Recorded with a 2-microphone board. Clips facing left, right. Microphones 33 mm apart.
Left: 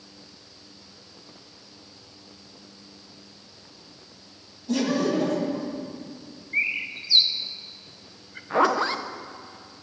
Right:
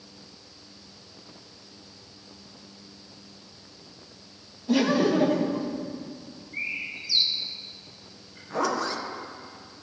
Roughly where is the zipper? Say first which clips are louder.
Left 5 dB; left.